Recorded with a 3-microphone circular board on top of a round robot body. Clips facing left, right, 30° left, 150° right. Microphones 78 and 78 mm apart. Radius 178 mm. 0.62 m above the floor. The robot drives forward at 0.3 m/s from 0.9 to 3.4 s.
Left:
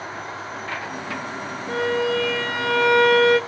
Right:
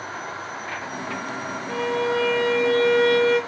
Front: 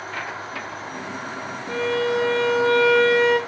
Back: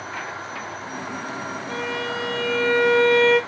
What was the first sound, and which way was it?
A violin, 80° left.